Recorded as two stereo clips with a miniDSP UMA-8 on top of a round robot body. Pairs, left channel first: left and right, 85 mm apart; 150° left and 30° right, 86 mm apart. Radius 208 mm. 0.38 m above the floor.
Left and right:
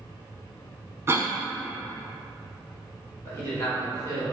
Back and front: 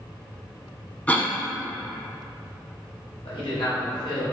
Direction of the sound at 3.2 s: 150° left.